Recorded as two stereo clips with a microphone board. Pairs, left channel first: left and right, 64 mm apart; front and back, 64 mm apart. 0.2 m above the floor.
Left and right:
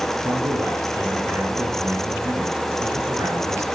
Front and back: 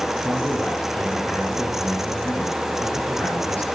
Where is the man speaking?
60° right, 3.5 m.